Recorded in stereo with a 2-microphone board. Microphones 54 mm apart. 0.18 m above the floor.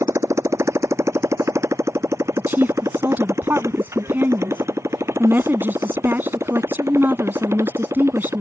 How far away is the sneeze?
I don't hear a sneeze.